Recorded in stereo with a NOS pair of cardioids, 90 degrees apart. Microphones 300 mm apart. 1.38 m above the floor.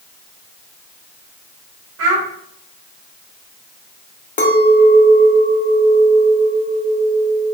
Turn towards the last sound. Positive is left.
turn(degrees=25)